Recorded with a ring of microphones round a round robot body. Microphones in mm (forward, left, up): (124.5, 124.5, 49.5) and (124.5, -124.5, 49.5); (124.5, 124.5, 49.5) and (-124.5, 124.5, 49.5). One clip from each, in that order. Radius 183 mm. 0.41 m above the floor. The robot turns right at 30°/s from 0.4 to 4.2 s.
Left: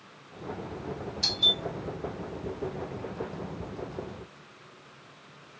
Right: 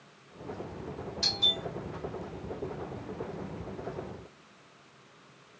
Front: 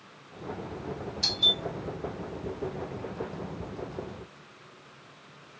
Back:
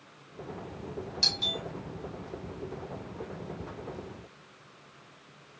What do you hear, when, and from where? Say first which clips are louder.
1.2 s a doorbell: left 3 dB, front 3 dB; 150° right, 2.5 m; by 1.6 s 135° right, 2.5 m